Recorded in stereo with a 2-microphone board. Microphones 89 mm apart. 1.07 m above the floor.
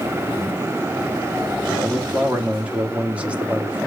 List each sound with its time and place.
1.7 s a man speaking: 15° right (ahead or behind), 2.5 m